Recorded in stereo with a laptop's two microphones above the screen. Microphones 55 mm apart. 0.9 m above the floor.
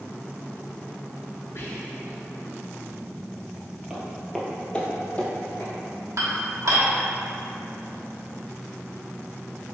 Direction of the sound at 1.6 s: 50° left (ahead or behind).